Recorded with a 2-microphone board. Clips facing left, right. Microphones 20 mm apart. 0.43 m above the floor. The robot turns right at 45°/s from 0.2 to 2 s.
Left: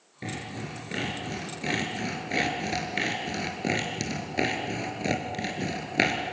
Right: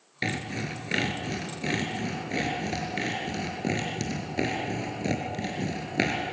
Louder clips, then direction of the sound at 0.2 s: Right 5 dB; 60° right (ahead or behind).